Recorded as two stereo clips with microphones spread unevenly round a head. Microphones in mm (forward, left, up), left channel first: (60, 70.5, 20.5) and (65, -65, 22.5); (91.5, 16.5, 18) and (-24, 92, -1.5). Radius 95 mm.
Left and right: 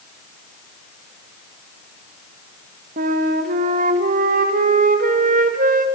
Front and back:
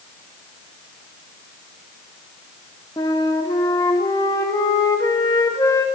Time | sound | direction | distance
3.0 | a flute | 105° right | 1.7 m